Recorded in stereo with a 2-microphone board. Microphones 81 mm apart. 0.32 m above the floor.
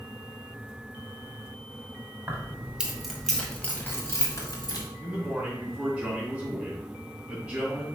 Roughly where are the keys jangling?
Right.